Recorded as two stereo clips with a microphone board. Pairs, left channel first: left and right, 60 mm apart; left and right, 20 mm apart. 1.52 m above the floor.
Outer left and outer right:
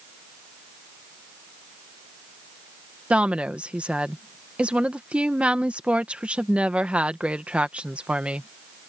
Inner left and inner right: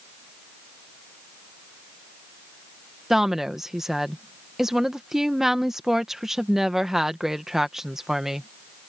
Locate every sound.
3.1 s a woman speaking: 20° right (ahead or behind)